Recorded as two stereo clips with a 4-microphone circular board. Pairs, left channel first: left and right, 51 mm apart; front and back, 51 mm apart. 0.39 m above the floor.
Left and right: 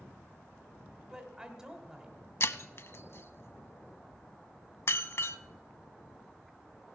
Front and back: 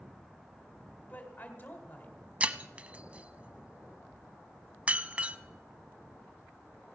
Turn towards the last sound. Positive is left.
turn(degrees=115)